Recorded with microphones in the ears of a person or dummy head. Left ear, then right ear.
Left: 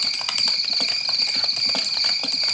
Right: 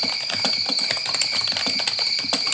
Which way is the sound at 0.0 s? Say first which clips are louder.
Left 1 dB; 60° left (ahead or behind).